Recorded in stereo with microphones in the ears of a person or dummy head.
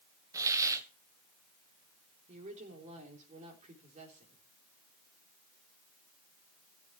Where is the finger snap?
No finger snap in this recording.